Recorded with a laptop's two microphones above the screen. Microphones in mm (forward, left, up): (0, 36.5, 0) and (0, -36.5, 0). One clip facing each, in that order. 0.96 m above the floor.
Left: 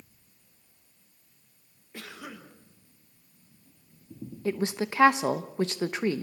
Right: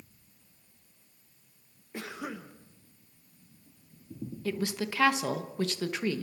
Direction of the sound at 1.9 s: 20° right (ahead or behind).